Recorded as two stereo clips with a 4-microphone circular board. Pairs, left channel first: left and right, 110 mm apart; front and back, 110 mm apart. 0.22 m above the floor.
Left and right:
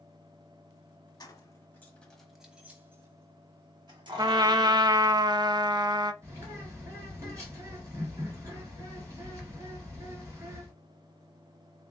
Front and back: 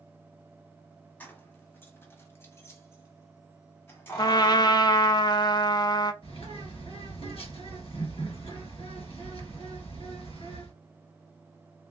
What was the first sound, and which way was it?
Keys jangling, 65° left.